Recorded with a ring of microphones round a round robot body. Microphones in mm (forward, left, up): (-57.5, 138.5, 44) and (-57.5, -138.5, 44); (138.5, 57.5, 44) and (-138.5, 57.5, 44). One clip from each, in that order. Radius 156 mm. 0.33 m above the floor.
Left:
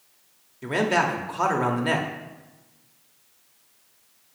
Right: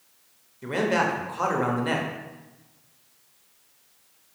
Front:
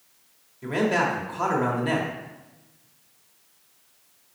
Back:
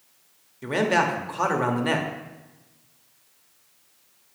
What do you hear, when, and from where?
0.6 s a man speaking: 150° left, 1.0 m